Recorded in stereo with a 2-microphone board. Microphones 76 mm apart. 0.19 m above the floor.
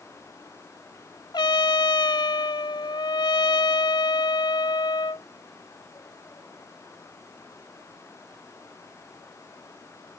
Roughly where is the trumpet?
Left.